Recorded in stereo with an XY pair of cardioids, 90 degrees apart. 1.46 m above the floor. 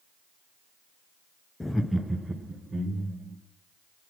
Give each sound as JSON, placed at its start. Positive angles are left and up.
{"t": 1.6, "sound": "laughter", "azimuth_deg": 20, "distance_m": 0.8}